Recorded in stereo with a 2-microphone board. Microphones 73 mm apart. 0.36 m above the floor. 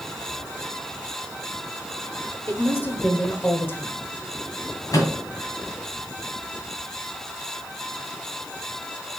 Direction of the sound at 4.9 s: 50° left (ahead or behind).